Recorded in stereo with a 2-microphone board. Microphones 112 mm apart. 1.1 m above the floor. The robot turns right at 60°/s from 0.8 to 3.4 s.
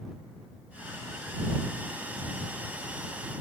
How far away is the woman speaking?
I don't hear a woman speaking.